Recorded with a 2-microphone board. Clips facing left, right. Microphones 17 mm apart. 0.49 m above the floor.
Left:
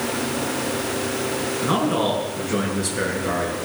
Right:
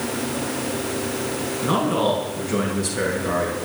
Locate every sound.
1.6 s a man speaking: 5° left (ahead or behind), 7.5 m